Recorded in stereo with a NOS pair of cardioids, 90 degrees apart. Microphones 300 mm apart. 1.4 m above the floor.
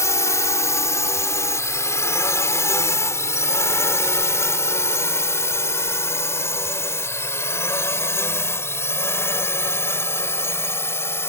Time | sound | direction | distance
0.0 | a drone | 10° left | ?